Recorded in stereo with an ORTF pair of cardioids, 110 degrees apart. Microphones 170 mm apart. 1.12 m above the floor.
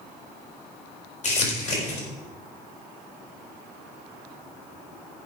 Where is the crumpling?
45° left, 5 m.